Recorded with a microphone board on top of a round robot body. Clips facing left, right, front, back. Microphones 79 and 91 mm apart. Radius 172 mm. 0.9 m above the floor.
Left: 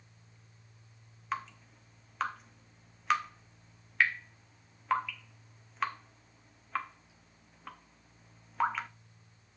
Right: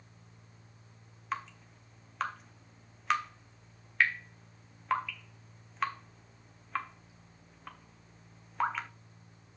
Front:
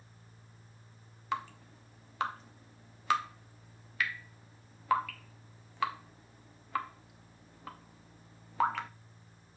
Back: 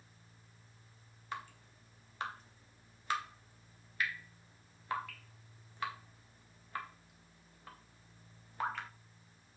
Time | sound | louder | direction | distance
1.3 | dripping | left 1 dB, front 8 dB | straight ahead | 0.6 m